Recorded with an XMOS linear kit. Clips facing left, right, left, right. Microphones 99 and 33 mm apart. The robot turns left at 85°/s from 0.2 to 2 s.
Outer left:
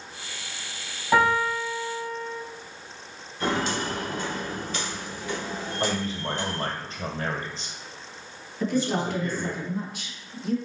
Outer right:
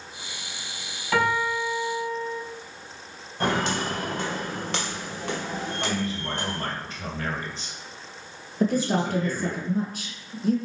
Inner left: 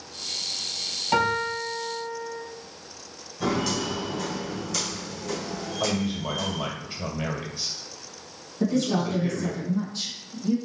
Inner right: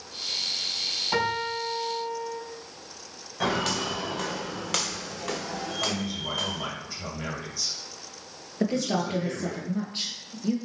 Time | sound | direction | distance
1.1 | a piano | 25° left | 2 m
3.4 | footsteps | 70° right (ahead or behind) | 2.5 m
5.8 | a man speaking | 35° left (ahead or behind) | 2 m
8.6 | a woman speaking | 45° right (ahead or behind) | 1.6 m